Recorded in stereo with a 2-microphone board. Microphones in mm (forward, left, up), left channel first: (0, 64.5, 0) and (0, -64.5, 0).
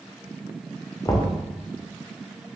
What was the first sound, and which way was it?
Knocking, 25° left (ahead or behind).